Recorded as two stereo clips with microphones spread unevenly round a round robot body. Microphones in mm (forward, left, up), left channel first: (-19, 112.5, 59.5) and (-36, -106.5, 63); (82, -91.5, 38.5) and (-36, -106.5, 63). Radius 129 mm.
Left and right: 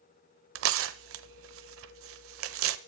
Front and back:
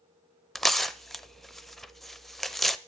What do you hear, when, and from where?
0.6 s tearing paper: 75° right, 0.6 m